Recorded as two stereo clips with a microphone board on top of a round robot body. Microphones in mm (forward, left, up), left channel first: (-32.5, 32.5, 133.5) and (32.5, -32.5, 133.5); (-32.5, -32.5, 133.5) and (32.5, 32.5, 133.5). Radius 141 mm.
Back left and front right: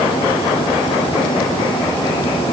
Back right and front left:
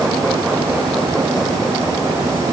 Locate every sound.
Only background noise.